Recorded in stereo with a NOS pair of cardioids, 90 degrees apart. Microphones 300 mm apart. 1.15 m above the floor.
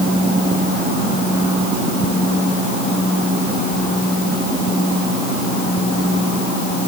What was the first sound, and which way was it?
Only background noise.